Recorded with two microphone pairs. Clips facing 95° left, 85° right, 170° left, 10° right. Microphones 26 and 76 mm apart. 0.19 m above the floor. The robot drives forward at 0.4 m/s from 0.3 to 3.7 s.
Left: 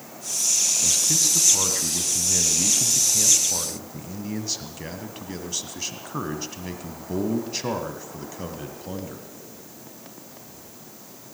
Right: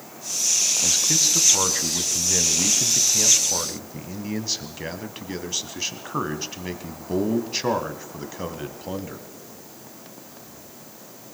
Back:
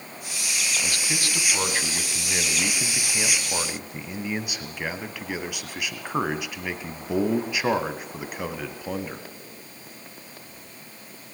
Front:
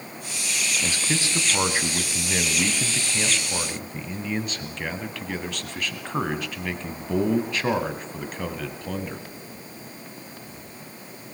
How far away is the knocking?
No knocking in this recording.